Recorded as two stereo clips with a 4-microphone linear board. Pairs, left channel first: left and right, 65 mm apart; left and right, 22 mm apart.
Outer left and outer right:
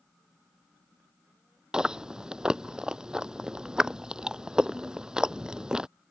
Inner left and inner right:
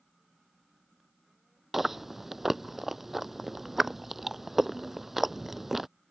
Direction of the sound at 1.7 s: 10° right (ahead or behind).